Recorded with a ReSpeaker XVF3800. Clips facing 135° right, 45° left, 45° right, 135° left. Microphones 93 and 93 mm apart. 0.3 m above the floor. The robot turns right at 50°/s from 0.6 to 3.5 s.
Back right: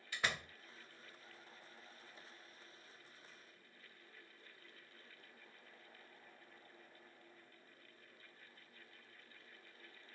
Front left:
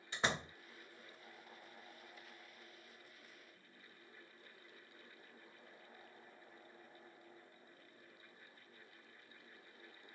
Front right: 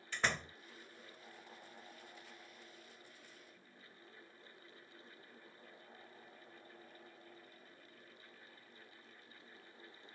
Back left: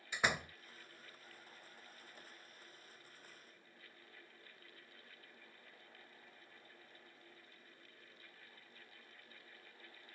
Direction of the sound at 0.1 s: 70° left.